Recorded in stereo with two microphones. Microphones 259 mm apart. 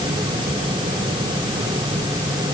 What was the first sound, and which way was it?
Only background noise.